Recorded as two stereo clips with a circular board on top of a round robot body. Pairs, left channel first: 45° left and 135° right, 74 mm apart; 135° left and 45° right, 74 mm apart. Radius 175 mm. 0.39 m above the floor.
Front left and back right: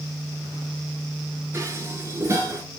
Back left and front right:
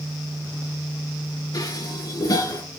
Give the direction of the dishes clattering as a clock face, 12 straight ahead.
6 o'clock.